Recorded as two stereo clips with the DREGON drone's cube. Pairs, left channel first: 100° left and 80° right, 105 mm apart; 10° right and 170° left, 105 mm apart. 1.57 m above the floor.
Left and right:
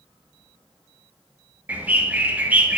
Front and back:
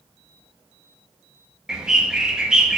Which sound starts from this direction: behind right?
A bird, at 1.7 s.